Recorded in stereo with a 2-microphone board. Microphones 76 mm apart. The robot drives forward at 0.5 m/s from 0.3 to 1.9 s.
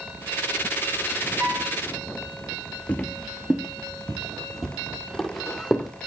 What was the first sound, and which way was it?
A piano, 25° right (ahead or behind).